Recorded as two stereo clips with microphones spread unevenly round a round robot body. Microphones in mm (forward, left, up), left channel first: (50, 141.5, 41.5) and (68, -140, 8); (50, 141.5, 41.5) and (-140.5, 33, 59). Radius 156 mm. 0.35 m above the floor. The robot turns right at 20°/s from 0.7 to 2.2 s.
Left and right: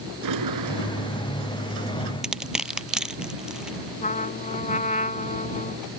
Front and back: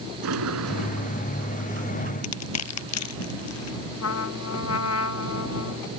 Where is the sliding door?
115° right; by 2.1 s 85° right.